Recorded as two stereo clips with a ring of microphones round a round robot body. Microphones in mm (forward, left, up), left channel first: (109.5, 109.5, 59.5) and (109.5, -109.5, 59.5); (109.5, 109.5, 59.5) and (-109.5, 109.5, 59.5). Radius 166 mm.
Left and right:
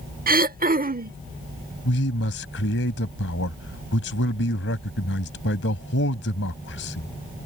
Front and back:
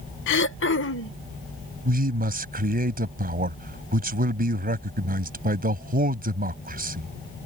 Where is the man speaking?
135° left.